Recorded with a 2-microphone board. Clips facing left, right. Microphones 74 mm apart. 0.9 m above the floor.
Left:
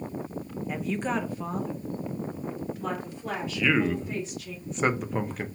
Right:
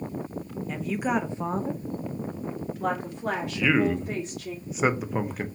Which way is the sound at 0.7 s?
10° left (ahead or behind).